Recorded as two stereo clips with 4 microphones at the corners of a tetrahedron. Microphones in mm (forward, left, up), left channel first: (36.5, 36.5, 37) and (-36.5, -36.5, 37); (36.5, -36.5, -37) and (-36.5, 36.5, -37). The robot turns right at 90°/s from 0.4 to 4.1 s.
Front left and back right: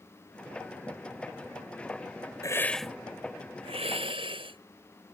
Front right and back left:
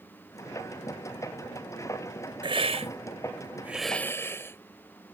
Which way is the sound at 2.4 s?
100° left.